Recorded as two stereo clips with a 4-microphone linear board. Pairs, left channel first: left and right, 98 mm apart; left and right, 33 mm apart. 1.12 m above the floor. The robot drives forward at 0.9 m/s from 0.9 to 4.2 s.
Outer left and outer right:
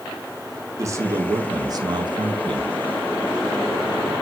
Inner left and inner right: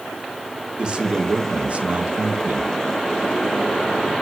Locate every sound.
0.8 s a man speaking: 30° right (ahead or behind), 2.5 m; by 2.7 s 60° right (ahead or behind), 1.4 m